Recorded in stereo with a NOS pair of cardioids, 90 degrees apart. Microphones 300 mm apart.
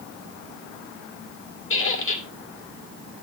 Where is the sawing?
No sawing in this recording.